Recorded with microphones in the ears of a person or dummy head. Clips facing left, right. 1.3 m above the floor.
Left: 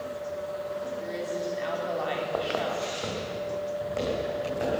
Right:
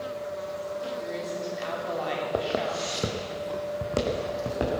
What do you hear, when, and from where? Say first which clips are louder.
1.0 s a woman speaking: left 1 dB; centre (ahead or behind), 2.5 m
2.3 s footsteps: right 3 dB; 25° right (ahead or behind), 2 m; by 4.8 s 60° right (ahead or behind), 4.5 m